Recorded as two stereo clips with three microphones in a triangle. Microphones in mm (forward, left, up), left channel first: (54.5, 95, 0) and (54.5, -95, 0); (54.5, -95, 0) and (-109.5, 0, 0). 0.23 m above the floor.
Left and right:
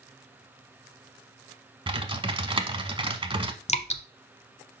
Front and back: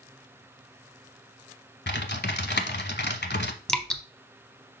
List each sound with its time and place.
1.9 s typing on a keyboard: 30° right, 0.8 m
3.7 s dripping: 55° left, 0.7 m